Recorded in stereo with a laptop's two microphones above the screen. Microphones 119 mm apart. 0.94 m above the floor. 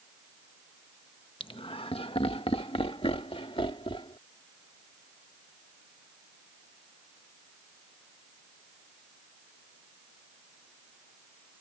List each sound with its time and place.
1.4 s laughter: 50° left (ahead or behind); by 4.2 s 55° left (ahead or behind)